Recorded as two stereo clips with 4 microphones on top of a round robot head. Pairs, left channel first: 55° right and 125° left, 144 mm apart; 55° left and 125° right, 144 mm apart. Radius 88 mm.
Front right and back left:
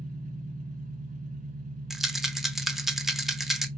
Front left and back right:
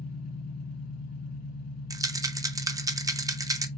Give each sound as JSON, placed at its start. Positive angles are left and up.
{"t": 0.0, "sound": "an engine running", "azimuth_deg": 80, "distance_m": 2.5}
{"t": 1.9, "sound": "a rattle", "azimuth_deg": -150, "distance_m": 0.7}